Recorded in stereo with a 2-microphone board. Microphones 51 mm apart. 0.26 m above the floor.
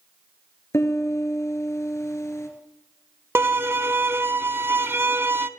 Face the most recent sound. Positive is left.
turn(degrees=-55)  # may be behind; listen again after turning